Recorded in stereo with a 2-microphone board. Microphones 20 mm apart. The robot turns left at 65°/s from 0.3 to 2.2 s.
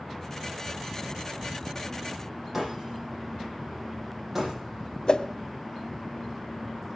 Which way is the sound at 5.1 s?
45° left (ahead or behind).